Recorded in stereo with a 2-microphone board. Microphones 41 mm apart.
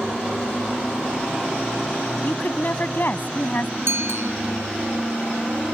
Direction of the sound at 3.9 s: 80° right.